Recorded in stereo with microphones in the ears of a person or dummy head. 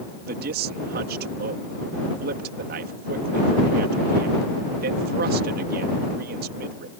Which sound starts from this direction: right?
A man speaking, at 0.3 s.